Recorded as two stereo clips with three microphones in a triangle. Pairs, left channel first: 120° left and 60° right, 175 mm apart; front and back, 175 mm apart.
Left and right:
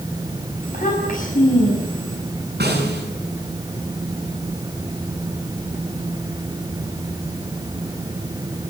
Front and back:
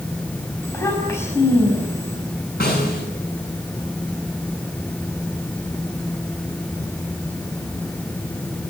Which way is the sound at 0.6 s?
75° left.